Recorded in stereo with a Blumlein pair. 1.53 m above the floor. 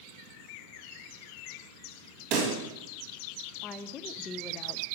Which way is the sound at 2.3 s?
35° right.